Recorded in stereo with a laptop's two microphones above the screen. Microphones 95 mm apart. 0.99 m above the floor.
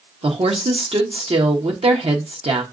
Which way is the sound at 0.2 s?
80° right.